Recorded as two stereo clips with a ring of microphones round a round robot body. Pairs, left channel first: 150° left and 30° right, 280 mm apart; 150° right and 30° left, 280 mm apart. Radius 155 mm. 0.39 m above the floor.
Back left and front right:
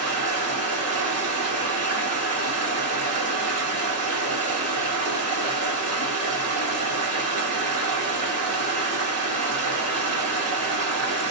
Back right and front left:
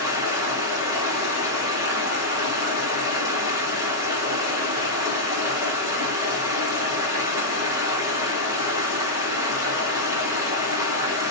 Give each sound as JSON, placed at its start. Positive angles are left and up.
{"t": 0.0, "sound": "running water", "azimuth_deg": -45, "distance_m": 1.9}